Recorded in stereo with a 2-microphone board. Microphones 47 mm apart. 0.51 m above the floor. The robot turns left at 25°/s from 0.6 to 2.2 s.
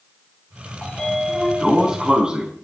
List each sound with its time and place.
0.8 s a sliding door: 15° left, 3.5 m; by 2.5 s 20° right, 3.5 m